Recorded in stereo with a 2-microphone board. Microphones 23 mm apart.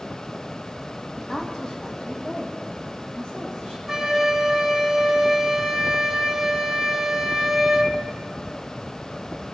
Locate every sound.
1.2 s a woman speaking: 15° left (ahead or behind), 1.5 m; by 3.8 s 60° left (ahead or behind), 4.5 m
3.9 s a flute: 20° right (ahead or behind), 1.3 m